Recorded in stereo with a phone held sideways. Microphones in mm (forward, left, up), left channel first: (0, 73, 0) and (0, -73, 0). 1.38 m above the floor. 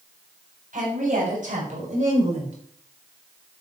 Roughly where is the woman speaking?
Right.